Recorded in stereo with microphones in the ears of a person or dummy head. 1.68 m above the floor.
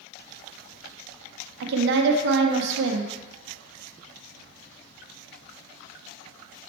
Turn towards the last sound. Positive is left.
turn(degrees=-55)  # may be behind; listen again after turning